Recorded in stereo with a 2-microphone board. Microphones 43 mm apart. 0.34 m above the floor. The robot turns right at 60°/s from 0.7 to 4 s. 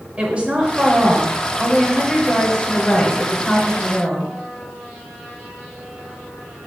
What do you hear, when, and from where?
0.2 s a woman speaking: 25° right (ahead or behind), 1.6 m; by 4.3 s 25° left (ahead or behind), 1.6 m